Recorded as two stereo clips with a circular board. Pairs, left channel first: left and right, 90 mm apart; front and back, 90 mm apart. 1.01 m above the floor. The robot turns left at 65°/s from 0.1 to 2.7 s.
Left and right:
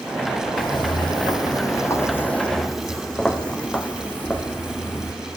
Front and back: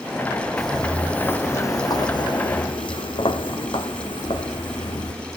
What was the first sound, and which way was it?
Footsteps, 90° left.